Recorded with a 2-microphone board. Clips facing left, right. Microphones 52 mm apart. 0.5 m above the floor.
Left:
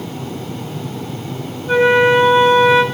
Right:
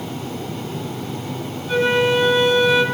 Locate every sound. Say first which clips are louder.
1.7 s a flute: left 6 dB; 40° left (ahead or behind), 1.8 m